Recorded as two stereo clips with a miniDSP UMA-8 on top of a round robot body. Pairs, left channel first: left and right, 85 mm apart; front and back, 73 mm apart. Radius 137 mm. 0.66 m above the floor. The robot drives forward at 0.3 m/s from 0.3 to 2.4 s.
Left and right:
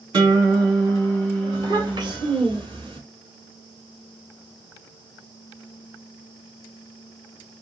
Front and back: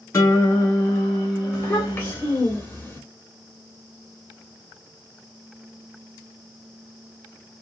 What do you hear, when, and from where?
0.1 s a guitar: 50° right, 2 m; by 2.2 s 65° right, 1.9 m
1.5 s a child speaking: 50° right, 2 m; by 3.0 s 55° right, 2 m